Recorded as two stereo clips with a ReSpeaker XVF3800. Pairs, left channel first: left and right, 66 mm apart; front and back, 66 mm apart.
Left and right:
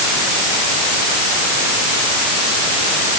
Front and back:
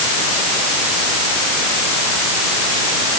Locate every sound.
Only background noise.